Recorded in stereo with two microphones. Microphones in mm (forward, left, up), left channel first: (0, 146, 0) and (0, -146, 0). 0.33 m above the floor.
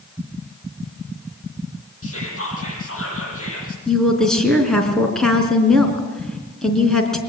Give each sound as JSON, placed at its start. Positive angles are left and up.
{"t": 2.0, "sound": "whispering", "side_deg": 50, "distance_m": 9.0}
{"t": 3.9, "sound": "a woman speaking", "side_deg": 0, "distance_m": 3.5}